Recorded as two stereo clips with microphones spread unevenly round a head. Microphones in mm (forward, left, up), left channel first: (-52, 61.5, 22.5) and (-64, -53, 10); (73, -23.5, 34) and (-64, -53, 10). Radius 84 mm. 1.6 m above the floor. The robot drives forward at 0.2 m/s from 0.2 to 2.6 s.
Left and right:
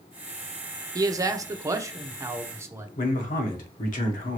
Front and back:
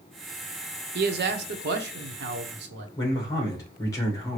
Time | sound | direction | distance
0.9 | a man speaking | 160° right | 0.6 m
3.0 | a man speaking | 80° left | 1.1 m